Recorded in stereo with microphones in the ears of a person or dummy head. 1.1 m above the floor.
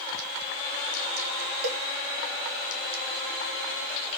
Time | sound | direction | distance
1.6 | a cowbell | 65° right (ahead or behind) | 2.5 m